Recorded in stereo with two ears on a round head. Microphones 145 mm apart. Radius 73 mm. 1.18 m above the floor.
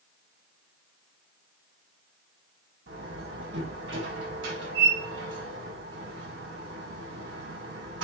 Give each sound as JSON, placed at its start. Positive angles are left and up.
{"t": 2.9, "sound": "a door slam", "side_deg": -85, "distance_m": 5.5}